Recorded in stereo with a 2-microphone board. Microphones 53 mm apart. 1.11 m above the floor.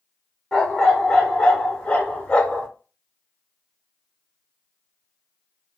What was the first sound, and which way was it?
A dog barking, 10° left (ahead or behind).